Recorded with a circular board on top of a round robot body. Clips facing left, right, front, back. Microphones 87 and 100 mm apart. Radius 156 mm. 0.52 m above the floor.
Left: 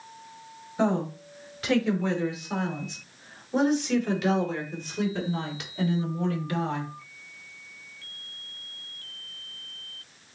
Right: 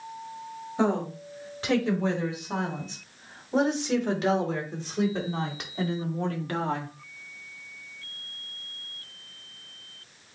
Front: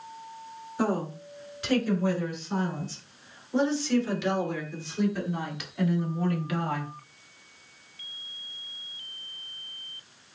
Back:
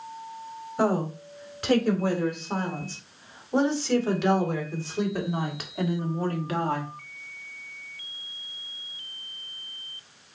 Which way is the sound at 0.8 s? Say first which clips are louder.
Even, back 3 dB; 150° right.